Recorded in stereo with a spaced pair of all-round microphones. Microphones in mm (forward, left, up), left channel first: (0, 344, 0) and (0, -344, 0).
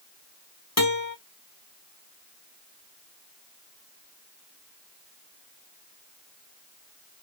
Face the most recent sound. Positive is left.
turn(degrees=25)  # may be behind; listen again after turning